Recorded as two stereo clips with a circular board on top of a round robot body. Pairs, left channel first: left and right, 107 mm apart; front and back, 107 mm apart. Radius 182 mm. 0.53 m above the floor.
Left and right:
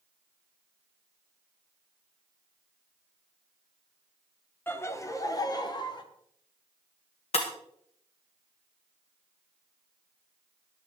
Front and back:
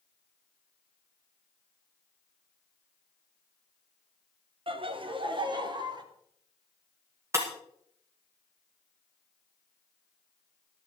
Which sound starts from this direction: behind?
Laughter, at 4.7 s.